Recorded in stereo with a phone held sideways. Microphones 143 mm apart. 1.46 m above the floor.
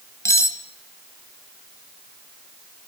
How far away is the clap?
I don't hear a clap.